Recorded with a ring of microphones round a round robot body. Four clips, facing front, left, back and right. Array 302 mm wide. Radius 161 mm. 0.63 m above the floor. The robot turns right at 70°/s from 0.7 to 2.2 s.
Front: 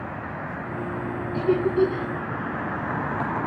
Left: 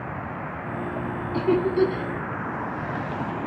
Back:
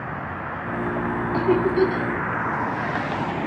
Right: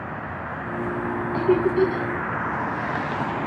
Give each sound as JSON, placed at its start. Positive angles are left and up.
{"t": 1.3, "sound": "laughter", "azimuth_deg": 130, "distance_m": 5.0}